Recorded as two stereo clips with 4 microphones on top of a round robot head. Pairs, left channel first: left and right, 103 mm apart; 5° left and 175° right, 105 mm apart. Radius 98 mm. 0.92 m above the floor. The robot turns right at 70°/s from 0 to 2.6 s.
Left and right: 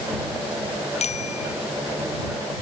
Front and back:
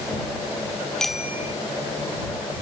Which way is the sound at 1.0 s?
85° left.